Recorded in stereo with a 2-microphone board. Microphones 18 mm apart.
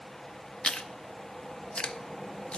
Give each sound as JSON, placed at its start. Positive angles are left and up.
{"t": 0.6, "sound": "chewing", "side_deg": 65, "distance_m": 0.5}